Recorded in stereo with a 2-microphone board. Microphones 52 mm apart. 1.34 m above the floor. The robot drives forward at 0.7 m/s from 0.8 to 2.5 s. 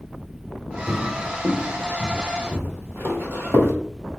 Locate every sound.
0.9 s footsteps: centre (ahead or behind), 1.6 m; by 3.7 s 50° right (ahead or behind), 2.5 m